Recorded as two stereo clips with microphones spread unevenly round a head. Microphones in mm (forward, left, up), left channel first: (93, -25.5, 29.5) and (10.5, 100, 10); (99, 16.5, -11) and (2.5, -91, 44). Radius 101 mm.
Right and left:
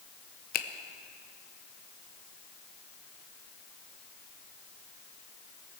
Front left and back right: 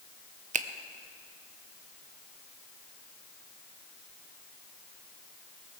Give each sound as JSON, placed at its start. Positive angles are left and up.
{"t": 0.5, "sound": "a finger snap", "azimuth_deg": -85, "distance_m": 0.8}